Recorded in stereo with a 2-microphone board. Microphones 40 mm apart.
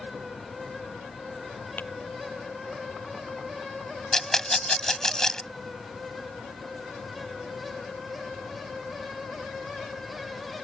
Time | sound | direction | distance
1.8 | tapping | 55° left (ahead or behind) | ?
4.1 | a rattle | 15° left (ahead or behind) | ?